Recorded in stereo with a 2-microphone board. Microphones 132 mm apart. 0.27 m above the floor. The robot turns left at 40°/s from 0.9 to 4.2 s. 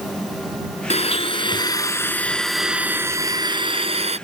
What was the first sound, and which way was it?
A blender, 65° left.